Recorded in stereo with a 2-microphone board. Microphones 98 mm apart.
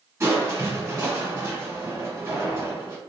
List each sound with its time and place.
0.2 s crushing: 25° right (ahead or behind), 1.9 m